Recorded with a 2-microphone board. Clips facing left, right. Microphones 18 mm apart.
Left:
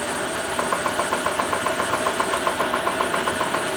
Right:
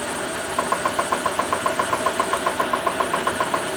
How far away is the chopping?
About 4 m.